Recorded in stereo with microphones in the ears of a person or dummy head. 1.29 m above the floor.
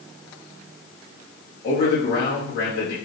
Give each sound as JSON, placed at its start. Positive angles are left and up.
{"t": 1.6, "sound": "a man speaking", "side_deg": 60, "distance_m": 1.0}